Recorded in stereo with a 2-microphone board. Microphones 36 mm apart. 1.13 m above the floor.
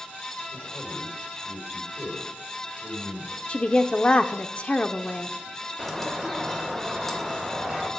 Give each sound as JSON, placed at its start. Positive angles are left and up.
{"t": 0.5, "sound": "a man speaking", "side_deg": 70, "distance_m": 3.5}
{"t": 3.5, "sound": "a woman speaking", "side_deg": 35, "distance_m": 0.5}
{"t": 5.8, "sound": "a bird", "side_deg": 5, "distance_m": 1.8}